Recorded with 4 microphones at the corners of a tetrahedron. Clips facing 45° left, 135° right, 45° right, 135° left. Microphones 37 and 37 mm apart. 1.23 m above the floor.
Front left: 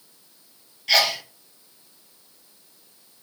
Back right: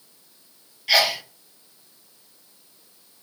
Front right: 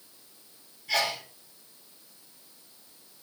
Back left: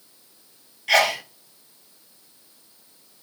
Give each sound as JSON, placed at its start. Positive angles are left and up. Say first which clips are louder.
{"t": 0.9, "sound": "a sneeze", "louder": "back right 1 dB, back left 9 dB", "azimuth_deg": 140, "distance_m": 0.9}